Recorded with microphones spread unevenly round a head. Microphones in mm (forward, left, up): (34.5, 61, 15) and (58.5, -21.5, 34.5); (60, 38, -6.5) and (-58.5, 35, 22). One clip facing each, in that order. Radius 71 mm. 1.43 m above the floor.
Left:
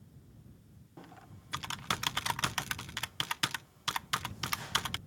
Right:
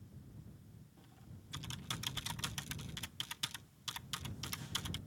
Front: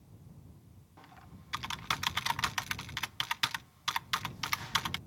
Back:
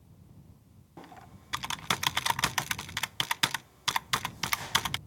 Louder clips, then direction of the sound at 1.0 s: Left 12 dB, back 7 dB; 145° left.